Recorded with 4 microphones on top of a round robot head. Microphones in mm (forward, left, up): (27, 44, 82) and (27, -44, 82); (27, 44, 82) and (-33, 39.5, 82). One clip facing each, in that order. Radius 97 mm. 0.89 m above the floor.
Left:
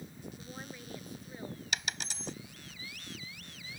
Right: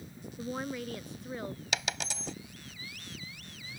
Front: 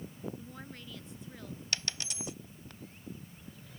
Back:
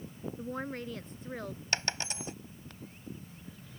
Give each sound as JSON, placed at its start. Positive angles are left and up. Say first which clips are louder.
{"t": 0.4, "sound": "a woman speaking", "louder": "right 10 dB, back 10 dB", "azimuth_deg": -120}
{"t": 1.7, "sound": "a dropped coin", "louder": "right 3 dB, back 5 dB", "azimuth_deg": -110}